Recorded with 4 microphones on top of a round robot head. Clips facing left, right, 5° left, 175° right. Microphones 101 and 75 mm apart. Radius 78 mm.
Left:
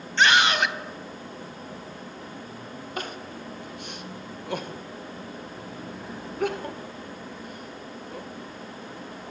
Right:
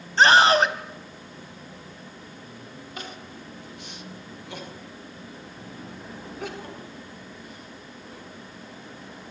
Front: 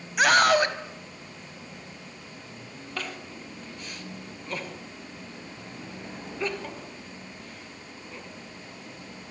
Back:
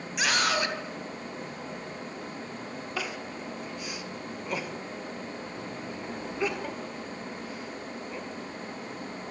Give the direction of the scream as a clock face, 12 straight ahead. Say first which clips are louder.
Right 5 dB, front 8 dB; 1 o'clock.